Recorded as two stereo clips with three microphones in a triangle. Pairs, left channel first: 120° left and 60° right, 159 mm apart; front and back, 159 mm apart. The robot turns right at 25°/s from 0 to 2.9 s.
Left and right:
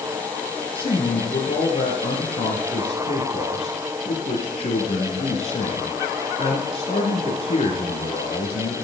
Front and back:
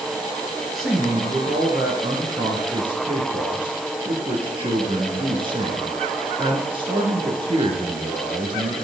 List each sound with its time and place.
0.7 s a man speaking: 90° left, 1.5 m; by 8.8 s 145° left, 1.5 m